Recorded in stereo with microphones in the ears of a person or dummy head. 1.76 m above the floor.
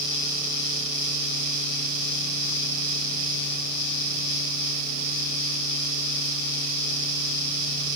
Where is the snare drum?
I don't hear a snare drum.